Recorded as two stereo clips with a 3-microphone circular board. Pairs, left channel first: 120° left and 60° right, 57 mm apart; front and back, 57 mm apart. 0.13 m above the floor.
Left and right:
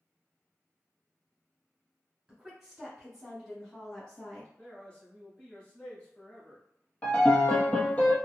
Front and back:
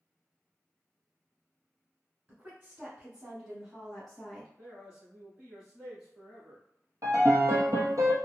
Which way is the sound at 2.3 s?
130° right.